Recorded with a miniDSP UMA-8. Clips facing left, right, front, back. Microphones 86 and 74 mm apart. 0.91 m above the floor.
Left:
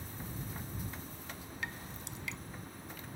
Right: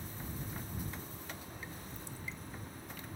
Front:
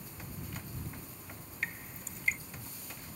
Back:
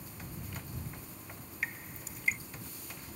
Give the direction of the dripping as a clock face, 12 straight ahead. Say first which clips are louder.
Left 3 dB, even; 9 o'clock.